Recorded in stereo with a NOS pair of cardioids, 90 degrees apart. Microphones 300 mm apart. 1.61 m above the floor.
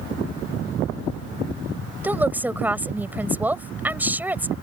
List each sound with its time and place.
2.0 s a woman speaking: 5° right